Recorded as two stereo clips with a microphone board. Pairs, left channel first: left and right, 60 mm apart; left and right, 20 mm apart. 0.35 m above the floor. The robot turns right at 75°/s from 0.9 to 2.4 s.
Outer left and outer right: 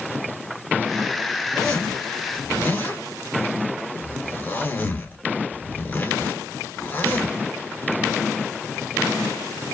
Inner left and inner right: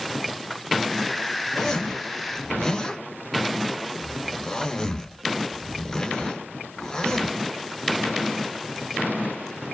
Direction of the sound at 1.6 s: 5° left (ahead or behind).